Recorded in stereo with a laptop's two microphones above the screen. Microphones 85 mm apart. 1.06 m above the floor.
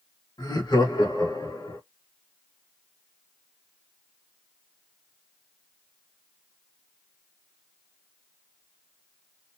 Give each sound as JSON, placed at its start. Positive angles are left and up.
{"t": 0.4, "sound": "laughter", "side_deg": 65, "distance_m": 1.7}